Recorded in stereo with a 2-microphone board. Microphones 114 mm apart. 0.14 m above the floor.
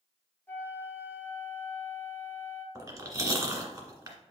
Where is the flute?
15° left (ahead or behind), 1.2 m.